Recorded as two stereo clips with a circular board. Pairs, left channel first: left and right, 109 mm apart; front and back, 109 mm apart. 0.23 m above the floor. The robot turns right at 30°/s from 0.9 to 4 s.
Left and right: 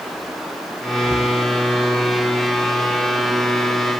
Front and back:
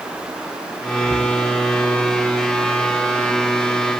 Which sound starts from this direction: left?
Breathing, at 1.0 s.